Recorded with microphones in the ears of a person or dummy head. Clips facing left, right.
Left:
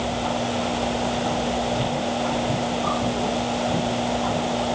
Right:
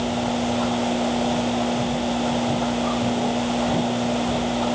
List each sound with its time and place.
Only background noise.